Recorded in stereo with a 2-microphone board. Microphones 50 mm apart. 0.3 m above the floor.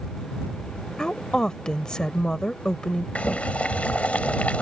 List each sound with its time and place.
1.0 s a woman speaking: 15° left (ahead or behind)
3.1 s boiling: 25° left (ahead or behind)